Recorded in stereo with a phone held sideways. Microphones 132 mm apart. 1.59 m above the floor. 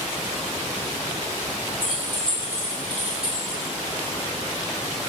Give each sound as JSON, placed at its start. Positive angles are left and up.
{"t": 1.8, "sound": "keys jangling", "side_deg": 35, "distance_m": 0.8}